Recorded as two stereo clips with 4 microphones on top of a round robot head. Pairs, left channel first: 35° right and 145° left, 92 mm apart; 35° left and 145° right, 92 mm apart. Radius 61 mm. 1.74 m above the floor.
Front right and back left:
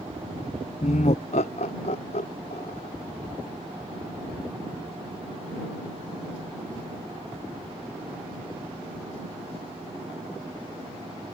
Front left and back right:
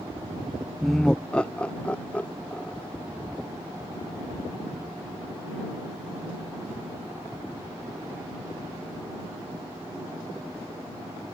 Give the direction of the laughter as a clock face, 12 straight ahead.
2 o'clock.